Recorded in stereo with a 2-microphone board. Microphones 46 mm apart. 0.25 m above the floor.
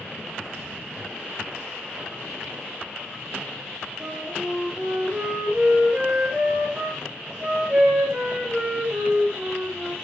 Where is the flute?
20° right (ahead or behind), 6.5 m.